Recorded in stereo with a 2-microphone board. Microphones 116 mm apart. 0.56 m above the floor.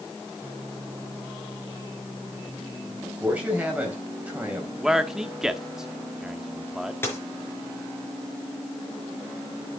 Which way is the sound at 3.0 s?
10° right (ahead or behind).